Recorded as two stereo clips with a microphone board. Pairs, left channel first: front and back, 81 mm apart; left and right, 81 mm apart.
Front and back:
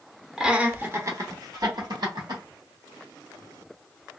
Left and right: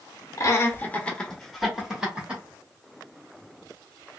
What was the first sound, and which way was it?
Laughter, 100° left.